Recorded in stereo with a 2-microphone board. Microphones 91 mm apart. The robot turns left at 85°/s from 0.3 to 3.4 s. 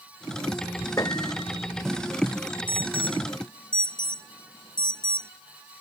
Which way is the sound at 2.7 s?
60° left (ahead or behind).